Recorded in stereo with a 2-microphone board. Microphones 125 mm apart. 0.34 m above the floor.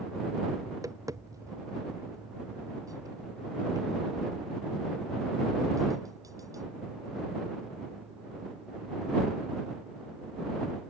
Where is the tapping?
25° right (ahead or behind).